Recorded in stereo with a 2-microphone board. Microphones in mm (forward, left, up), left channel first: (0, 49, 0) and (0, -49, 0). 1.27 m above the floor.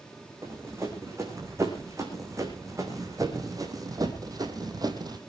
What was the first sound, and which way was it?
Running footsteps, 30° right (ahead or behind).